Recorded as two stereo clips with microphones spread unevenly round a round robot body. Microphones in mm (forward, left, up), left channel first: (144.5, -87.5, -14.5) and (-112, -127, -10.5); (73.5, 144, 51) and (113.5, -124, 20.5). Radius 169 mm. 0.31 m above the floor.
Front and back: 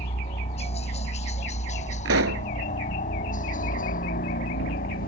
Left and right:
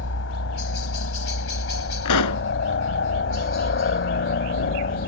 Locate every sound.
0.0 s a helicopter: 75° left; by 5.1 s 60° left
2.0 s a pop: 135° left